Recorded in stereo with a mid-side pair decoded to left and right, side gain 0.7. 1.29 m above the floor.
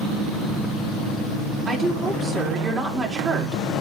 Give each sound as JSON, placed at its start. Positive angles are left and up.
{"t": 1.7, "sound": "a woman speaking", "azimuth_deg": -25, "distance_m": 3.5}